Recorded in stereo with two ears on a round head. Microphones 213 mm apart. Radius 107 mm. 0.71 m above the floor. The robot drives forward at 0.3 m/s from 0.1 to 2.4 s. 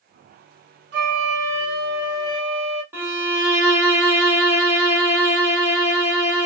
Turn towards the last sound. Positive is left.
turn(degrees=-10)  # may be behind; listen again after turning